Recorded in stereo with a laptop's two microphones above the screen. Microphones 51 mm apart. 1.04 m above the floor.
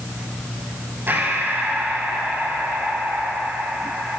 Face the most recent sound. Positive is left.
turn(degrees=-40)  # may be behind; listen again after turning